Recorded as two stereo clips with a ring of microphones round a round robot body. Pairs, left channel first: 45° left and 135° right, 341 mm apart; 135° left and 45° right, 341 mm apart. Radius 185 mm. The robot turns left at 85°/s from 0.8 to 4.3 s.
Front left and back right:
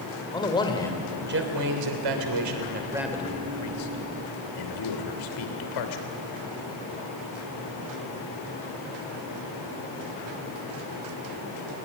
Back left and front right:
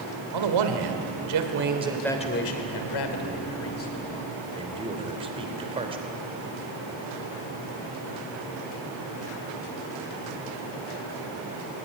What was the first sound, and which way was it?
A man speaking, 35° right.